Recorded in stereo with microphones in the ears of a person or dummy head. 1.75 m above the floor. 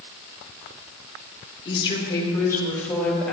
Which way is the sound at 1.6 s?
35° left (ahead or behind).